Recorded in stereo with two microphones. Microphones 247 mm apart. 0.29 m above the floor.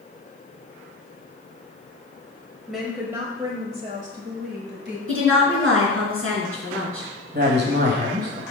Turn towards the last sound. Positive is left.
turn(degrees=-40)  # may be behind; listen again after turning